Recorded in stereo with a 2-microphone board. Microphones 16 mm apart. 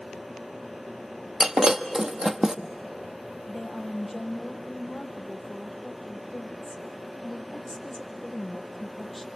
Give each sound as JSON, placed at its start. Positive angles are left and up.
{"t": 1.4, "sound": "breaking glass", "side_deg": -45, "distance_m": 1.1}
{"t": 3.5, "sound": "a woman speaking", "side_deg": 25, "distance_m": 3.0}